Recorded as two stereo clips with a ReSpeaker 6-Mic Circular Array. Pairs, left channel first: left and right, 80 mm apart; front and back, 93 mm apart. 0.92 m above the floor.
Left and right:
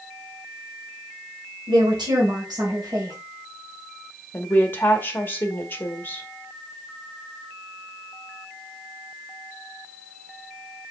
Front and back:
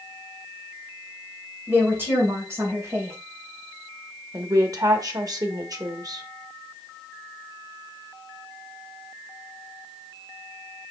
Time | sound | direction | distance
1.7 | a woman speaking | 110° right | 3.5 m
4.3 | a woman speaking | 150° left | 1.2 m